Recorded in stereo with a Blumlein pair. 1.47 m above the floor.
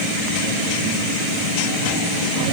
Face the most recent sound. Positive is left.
No sound to turn to.